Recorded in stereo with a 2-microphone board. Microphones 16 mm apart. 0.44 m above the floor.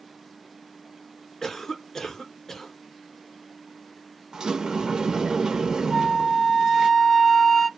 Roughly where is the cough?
Left.